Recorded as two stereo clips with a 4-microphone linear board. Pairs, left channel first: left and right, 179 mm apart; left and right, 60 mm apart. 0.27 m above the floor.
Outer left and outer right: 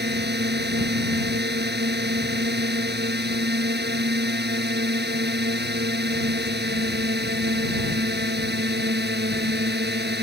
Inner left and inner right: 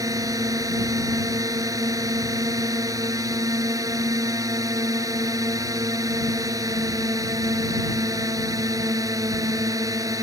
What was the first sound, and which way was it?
A drone, 70° right (ahead or behind).